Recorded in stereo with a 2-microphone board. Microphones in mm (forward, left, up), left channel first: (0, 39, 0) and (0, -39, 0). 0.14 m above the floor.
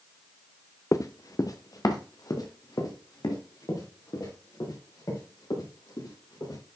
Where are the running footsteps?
45° left (ahead or behind), 0.7 m; by 6.6 s 55° left (ahead or behind), 7.5 m.